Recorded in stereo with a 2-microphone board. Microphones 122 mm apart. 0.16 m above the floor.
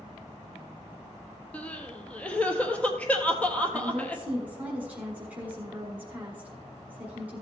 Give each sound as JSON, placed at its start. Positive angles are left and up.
{"t": 1.5, "sound": "crying", "side_deg": 10, "distance_m": 1.0}
{"t": 3.7, "sound": "a woman speaking", "side_deg": -10, "distance_m": 1.6}